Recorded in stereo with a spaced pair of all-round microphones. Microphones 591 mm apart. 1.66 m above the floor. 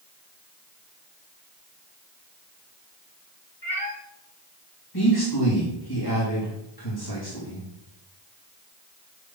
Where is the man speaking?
35° left (ahead or behind), 3 m.